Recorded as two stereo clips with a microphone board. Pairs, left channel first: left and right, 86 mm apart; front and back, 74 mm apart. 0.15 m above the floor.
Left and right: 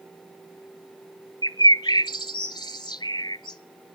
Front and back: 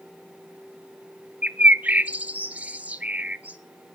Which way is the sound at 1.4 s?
115° left.